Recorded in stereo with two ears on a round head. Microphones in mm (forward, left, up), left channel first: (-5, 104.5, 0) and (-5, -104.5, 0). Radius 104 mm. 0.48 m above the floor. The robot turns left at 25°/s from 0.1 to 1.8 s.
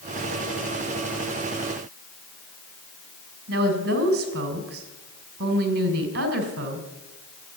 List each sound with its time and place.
3.5 s a woman speaking: 45° right (ahead or behind), 2.5 m